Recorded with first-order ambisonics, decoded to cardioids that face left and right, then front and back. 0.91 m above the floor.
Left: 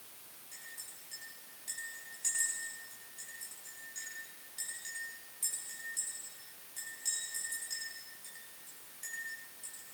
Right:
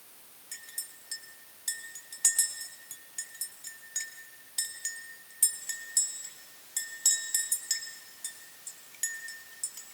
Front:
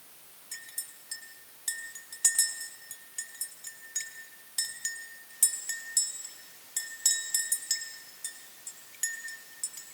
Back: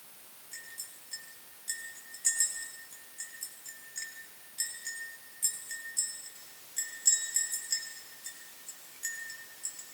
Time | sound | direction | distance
0.5 | a clink | 40° right | 3.5 m